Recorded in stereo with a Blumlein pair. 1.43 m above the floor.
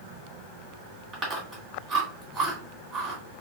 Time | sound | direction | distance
1.1 | chewing | 25° right | 2 m